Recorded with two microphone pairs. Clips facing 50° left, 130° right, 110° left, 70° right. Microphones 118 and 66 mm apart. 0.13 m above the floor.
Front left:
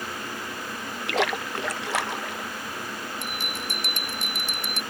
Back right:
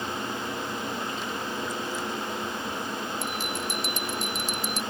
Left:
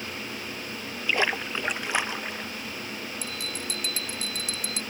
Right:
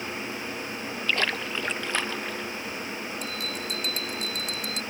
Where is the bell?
25° left.